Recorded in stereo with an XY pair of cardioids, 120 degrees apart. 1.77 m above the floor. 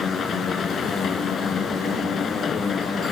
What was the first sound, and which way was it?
A machine running, 40° left.